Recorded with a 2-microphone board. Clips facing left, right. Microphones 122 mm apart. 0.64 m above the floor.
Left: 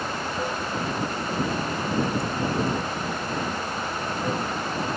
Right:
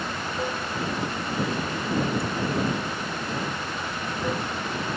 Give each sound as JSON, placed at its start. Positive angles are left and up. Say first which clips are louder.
{"t": 0.0, "sound": "running water", "louder": "left 1 dB", "side_deg": -5}